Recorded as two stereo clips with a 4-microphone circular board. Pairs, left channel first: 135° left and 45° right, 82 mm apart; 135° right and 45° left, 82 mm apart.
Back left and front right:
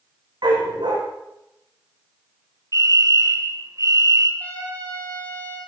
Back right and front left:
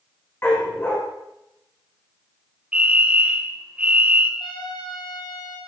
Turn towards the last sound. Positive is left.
turn(degrees=-155)